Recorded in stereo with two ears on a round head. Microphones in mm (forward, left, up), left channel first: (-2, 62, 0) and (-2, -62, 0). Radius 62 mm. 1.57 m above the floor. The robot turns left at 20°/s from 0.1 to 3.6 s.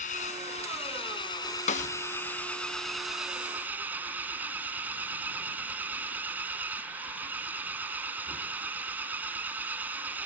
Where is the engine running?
55° left; by 10.3 s 15° right.